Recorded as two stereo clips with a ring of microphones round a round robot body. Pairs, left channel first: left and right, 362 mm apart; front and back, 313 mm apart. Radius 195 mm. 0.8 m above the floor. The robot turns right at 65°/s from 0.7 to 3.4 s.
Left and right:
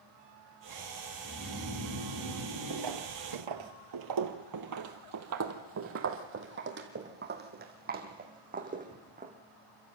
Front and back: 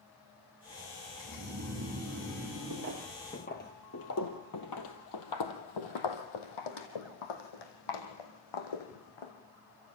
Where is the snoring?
155° right, 8 m; by 3.7 s 15° right, 8 m.